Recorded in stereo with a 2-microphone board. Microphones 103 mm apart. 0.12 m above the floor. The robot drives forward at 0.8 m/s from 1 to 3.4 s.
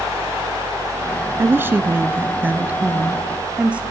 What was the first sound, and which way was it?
A woman speaking, 20° right (ahead or behind).